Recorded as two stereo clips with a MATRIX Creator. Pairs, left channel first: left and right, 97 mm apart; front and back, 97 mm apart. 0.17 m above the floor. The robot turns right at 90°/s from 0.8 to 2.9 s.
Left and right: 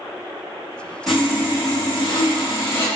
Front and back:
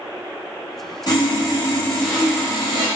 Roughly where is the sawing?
Ahead.